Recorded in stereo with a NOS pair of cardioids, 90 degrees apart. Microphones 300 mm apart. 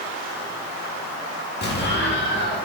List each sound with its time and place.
1.6 s an explosion: 35° left, 2 m